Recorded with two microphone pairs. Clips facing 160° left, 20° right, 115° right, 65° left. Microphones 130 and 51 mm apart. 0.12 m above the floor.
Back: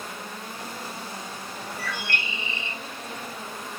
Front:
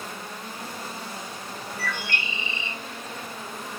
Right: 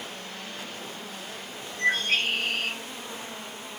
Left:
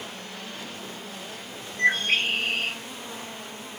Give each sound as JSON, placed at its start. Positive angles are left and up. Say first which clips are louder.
{"t": 1.8, "sound": "a bird", "louder": "front 1 dB, left 2 dB", "azimuth_deg": 70, "distance_m": 2.0}